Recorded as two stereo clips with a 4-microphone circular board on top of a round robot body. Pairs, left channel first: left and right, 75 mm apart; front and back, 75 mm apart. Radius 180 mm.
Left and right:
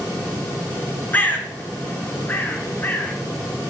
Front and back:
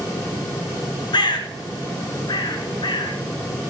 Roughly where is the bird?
Ahead left.